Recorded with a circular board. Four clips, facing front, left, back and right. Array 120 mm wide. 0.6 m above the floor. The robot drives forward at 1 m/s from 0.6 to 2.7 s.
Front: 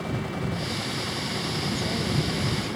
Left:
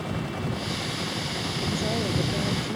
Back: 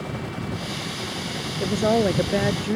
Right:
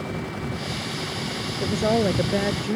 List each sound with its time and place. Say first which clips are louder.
1.6 s a woman speaking: right 8 dB, back 13 dB; 150° right